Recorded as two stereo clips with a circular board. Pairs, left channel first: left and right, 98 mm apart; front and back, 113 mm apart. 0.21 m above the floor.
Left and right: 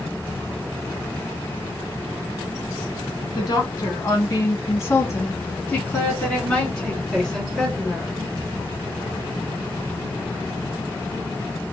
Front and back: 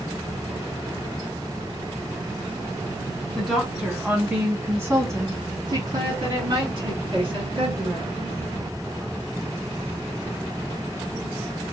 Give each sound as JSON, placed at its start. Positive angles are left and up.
{"t": 3.4, "sound": "a woman speaking", "azimuth_deg": 95, "distance_m": 1.8}